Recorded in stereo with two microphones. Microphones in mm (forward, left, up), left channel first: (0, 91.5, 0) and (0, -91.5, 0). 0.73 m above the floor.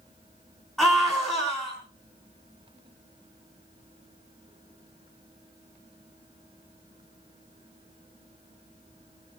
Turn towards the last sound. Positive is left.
turn(degrees=5)  # may be behind; listen again after turning